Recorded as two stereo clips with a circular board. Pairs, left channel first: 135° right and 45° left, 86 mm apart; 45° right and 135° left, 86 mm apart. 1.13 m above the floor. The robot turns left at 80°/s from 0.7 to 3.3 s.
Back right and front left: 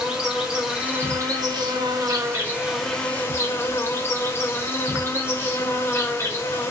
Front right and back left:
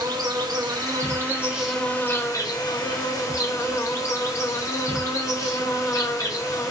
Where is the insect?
120° left, 0.8 m; by 6.7 s 85° right, 0.8 m.